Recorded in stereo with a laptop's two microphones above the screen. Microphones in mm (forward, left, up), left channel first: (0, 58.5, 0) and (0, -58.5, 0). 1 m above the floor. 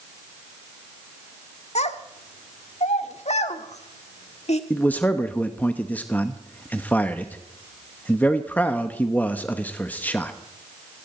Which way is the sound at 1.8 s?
70° left (ahead or behind).